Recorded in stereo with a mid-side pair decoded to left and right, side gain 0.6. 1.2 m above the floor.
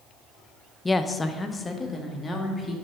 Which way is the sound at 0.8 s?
15° left.